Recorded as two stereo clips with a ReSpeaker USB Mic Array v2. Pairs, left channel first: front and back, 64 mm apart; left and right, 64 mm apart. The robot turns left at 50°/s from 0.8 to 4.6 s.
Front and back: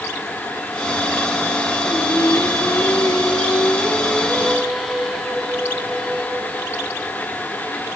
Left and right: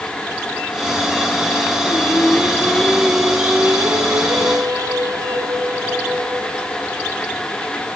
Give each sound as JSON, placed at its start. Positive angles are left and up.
{"t": 1.8, "sound": "singing", "azimuth_deg": 45, "distance_m": 2.0}